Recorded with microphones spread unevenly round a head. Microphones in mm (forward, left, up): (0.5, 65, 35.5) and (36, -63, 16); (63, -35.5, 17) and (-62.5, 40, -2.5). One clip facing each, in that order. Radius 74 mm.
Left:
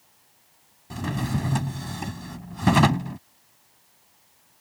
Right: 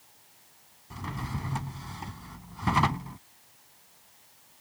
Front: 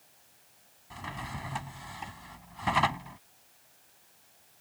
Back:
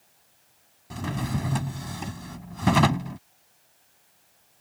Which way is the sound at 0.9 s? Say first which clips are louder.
Left 9 dB, back 11 dB; 115° left.